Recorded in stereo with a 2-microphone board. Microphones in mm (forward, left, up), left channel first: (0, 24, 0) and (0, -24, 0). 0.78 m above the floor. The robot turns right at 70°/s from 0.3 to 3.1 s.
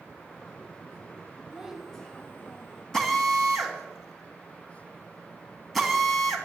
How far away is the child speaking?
About 2.5 m.